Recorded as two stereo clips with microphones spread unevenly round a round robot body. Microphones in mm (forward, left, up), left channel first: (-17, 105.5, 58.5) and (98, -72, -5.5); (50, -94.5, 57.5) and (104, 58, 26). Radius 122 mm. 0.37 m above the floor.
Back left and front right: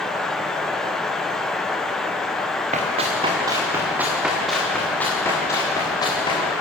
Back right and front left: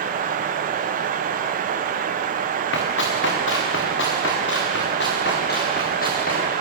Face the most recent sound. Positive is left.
turn(degrees=-165)